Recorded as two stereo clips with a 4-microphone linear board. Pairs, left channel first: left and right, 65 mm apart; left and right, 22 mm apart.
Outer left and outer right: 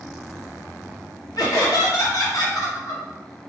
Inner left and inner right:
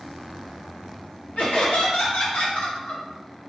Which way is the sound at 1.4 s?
75° left (ahead or behind).